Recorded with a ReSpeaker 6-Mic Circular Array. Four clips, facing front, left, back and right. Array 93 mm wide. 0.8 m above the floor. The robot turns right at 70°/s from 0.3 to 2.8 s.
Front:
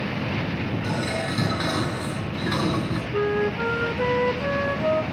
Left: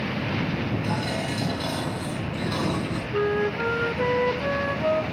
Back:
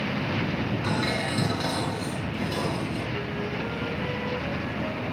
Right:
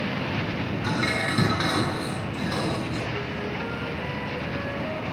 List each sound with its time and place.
0.8 s dishes clattering: 120° right, 9.5 m; by 3.0 s 20° left, 9.5 m
3.1 s a flute: 40° left, 1.0 m